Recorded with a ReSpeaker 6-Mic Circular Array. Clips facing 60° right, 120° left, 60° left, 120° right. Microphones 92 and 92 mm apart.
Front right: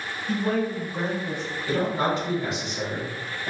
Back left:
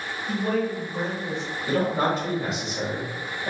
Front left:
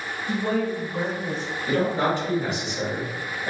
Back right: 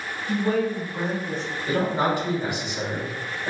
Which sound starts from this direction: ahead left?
A woman speaking, at 0.3 s.